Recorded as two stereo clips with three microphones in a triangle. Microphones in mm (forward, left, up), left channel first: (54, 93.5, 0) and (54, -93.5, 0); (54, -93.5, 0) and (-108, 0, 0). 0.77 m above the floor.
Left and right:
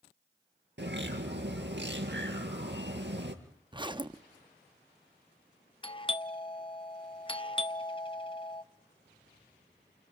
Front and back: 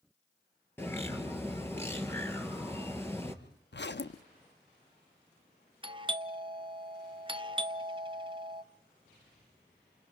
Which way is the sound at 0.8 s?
110° right.